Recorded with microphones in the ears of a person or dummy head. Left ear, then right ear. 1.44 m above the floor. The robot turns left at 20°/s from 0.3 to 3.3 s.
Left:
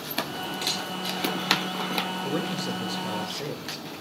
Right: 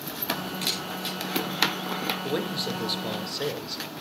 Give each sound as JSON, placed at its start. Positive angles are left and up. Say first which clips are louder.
{"t": 0.6, "sound": "a camera shutter", "louder": "left 2 dB", "side_deg": -10, "distance_m": 6.5}
{"t": 2.2, "sound": "a man speaking", "louder": "even", "side_deg": -30, "distance_m": 2.0}